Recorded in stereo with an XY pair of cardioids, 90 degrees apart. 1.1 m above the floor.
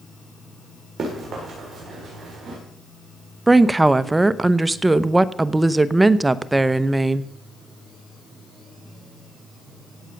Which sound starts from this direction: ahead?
A woman speaking, at 3.5 s.